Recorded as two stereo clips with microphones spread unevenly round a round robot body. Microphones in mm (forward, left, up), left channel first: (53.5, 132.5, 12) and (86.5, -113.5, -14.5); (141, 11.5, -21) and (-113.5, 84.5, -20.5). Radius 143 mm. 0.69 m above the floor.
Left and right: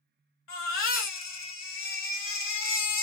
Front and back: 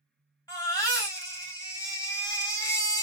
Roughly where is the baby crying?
Ahead left.